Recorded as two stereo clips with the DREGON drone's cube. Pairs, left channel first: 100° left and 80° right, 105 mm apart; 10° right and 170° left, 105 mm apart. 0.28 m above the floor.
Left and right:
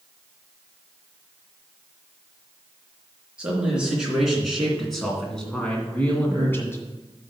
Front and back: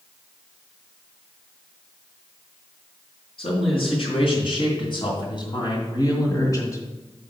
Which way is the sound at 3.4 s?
Straight ahead.